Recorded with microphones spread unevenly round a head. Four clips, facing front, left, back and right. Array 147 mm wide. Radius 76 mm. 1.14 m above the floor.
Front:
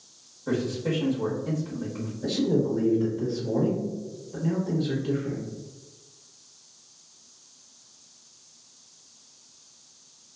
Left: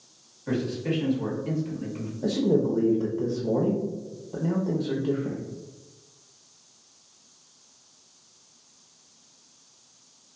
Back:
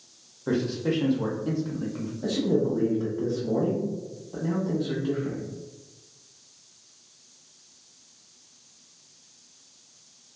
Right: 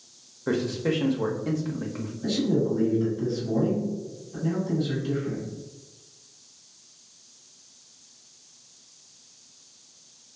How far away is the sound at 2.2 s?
About 0.7 m.